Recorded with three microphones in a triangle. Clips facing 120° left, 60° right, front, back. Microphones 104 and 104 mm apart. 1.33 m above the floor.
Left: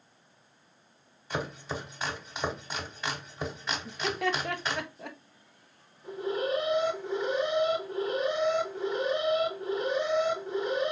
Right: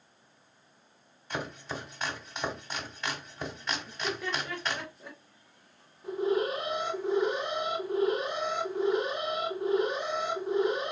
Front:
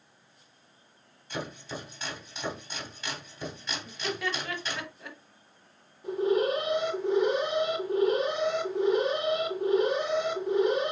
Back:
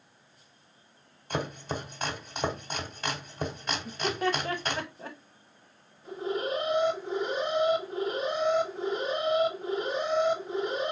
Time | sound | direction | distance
1.3 | chopping | 160° right | 1.5 m
3.9 | laughter | 130° left | 1.2 m
6.0 | an alarm | 10° left | 3.5 m